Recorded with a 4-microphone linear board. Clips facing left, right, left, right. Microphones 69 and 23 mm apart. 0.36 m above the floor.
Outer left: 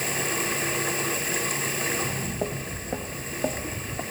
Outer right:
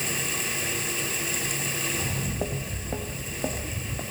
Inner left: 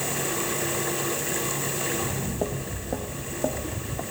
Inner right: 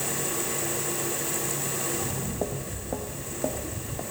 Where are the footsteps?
5° right (ahead or behind), 1.3 m; by 4.0 s 10° left (ahead or behind), 2.5 m.